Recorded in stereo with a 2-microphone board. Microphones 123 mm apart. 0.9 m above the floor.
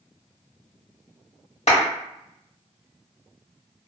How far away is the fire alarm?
I don't hear a fire alarm.